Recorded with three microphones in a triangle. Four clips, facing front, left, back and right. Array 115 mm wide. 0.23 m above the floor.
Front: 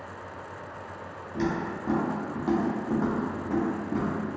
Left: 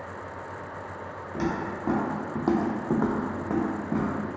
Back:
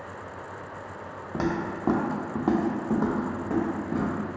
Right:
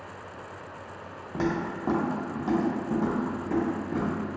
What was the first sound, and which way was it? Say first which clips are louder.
Footsteps: right 1 dB, back 1 dB; 165° right.